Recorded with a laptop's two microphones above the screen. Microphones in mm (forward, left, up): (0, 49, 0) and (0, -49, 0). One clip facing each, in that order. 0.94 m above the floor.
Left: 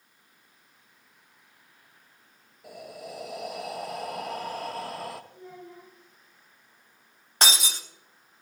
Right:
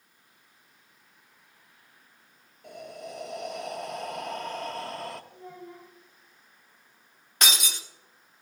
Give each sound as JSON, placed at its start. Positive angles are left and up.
{"t": 2.6, "sound": "breathing", "side_deg": 5, "distance_m": 0.7}
{"t": 5.3, "sound": "a child speaking", "side_deg": -45, "distance_m": 3.0}
{"t": 7.4, "sound": "breaking glass", "side_deg": 35, "distance_m": 0.9}